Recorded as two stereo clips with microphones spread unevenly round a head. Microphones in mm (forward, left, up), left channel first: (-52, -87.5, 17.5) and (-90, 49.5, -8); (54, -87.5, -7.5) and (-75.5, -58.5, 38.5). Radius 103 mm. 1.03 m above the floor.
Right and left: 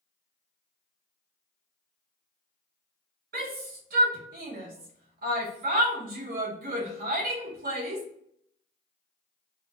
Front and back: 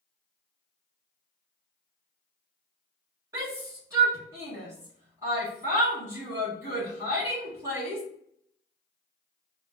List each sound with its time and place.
3.3 s a shout: 90° left, 1.7 m